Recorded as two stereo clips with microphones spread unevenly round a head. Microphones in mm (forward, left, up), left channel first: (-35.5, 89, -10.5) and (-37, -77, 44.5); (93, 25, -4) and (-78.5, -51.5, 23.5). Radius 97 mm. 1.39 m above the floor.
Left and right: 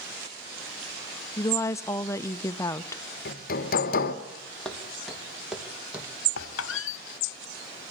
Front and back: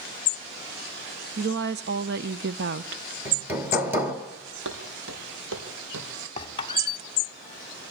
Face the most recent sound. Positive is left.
turn(degrees=90)